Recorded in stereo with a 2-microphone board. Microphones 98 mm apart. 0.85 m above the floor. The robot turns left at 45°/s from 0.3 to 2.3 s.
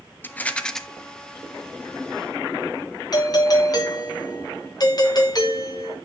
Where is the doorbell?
40° left (ahead or behind), 1.8 m.